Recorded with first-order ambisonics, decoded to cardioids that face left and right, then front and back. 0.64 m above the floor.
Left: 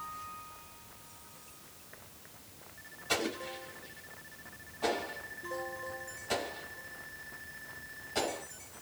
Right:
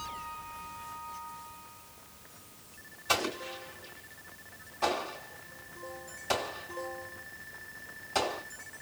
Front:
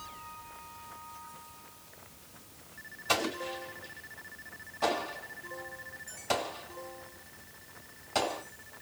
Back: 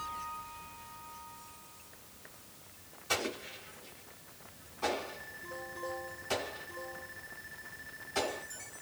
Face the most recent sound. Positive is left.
turn(degrees=-35)